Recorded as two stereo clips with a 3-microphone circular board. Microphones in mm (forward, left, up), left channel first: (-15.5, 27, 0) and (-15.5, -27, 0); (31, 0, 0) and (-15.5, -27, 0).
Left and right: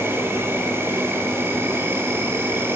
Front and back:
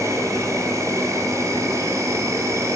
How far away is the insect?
About 1.6 m.